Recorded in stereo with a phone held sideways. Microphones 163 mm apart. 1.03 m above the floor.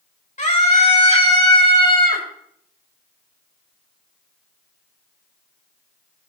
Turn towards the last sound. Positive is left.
turn(degrees=30)  # may be behind; listen again after turning